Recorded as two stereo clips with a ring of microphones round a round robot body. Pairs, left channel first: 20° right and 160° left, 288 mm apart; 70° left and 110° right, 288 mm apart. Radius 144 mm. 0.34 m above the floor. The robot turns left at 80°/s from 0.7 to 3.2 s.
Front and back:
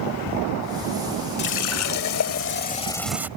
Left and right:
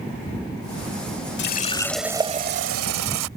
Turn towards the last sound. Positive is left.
turn(degrees=-120)